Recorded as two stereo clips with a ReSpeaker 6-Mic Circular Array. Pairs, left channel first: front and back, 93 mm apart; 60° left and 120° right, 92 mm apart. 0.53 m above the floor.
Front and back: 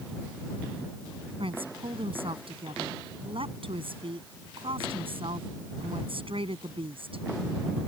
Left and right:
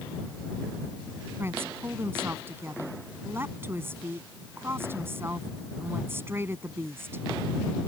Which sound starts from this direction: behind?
A woman speaking, at 1.4 s.